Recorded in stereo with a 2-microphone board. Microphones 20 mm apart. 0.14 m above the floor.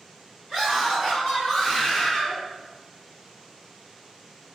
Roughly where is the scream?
Centre.